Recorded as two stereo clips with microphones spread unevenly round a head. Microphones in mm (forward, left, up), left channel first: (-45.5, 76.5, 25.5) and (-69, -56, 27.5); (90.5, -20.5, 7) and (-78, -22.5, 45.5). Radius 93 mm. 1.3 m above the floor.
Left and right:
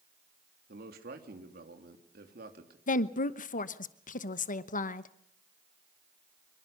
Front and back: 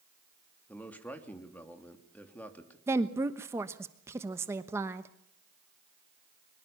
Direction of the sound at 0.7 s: 80° right.